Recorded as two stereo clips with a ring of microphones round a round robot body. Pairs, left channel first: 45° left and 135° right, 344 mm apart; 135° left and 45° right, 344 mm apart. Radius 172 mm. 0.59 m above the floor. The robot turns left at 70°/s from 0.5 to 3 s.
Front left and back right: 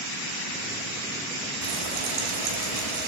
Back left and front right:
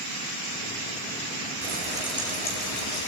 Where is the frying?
100° right, 7.5 m; by 3.1 s 165° left, 7.5 m.